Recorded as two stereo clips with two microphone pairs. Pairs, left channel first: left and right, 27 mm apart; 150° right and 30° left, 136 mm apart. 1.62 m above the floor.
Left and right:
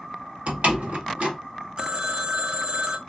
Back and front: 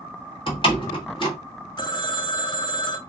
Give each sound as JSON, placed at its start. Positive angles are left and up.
{"t": 0.5, "sound": "a door slam", "azimuth_deg": -105, "distance_m": 1.7}
{"t": 1.8, "sound": "a phone ringing", "azimuth_deg": -115, "distance_m": 0.7}